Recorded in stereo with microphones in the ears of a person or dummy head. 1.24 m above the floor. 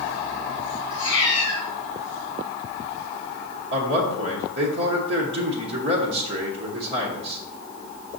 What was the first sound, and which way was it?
A cat meowing, 25° left (ahead or behind).